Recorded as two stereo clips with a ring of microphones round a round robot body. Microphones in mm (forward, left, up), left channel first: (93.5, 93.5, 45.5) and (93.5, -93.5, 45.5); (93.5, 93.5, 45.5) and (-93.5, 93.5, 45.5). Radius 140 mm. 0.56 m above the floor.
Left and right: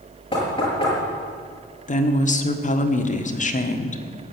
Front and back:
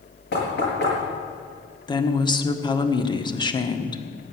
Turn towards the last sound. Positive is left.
turn(degrees=60)